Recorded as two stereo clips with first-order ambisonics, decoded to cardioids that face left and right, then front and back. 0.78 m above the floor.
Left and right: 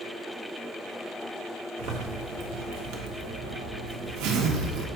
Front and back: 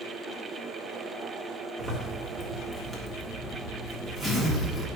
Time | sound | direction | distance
1.8 | a zipper | 80° right | 1.6 m